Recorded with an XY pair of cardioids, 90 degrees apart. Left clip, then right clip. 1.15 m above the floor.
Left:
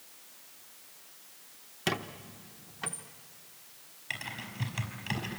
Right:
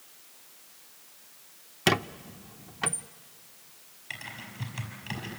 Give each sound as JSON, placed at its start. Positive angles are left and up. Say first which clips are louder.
{"t": 1.9, "sound": "a squeak", "louder": "right 7 dB", "azimuth_deg": -55, "distance_m": 0.6}
{"t": 4.1, "sound": "typing on a keyboard", "louder": "left 2 dB", "azimuth_deg": 30, "distance_m": 5.0}